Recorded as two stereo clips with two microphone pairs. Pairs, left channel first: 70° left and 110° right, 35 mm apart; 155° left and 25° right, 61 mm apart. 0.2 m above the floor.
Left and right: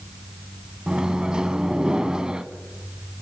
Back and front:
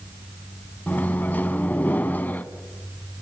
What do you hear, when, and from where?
0.9 s a microwave: 165° right, 1.2 m